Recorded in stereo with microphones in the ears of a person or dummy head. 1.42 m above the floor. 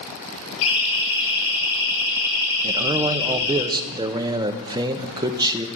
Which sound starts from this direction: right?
A man speaking, at 2.6 s.